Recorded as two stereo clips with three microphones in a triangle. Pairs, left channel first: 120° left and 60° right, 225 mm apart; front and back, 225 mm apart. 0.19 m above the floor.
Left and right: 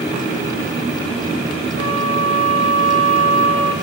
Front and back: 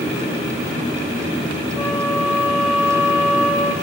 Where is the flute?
105° right, 4 m.